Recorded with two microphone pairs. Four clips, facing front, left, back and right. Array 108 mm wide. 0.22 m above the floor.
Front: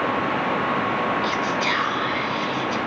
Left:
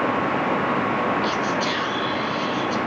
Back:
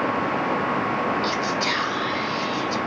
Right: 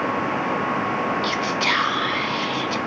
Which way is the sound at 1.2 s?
75° right.